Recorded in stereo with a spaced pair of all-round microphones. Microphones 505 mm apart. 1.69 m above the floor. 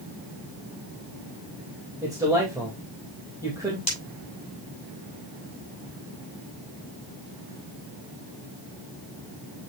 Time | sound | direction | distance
2.0 | a man speaking | 5° right (ahead or behind) | 2.5 m
3.9 | breaking glass | 45° left (ahead or behind) | 7 m